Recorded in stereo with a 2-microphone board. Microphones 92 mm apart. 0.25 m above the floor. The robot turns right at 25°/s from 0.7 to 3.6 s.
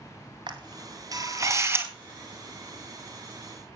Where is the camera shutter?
55° right (ahead or behind), 2 m; by 1.9 s 25° right (ahead or behind), 2 m.